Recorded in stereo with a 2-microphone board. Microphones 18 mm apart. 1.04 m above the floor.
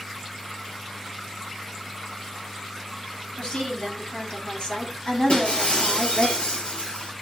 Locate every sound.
3.4 s a woman speaking: 75° left (ahead or behind), 3.5 m; by 6.3 s 60° left (ahead or behind), 2 m
5.3 s breaking glass: 80° left, 4.5 m